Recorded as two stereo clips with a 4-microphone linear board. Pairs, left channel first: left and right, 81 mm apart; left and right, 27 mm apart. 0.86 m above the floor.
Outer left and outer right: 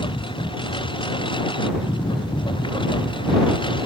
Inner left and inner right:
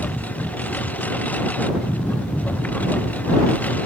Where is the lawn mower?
75° left (ahead or behind); by 3.9 s 70° left (ahead or behind).